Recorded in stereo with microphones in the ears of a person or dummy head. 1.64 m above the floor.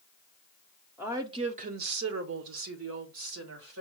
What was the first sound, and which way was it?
A woman speaking, 5° right (ahead or behind).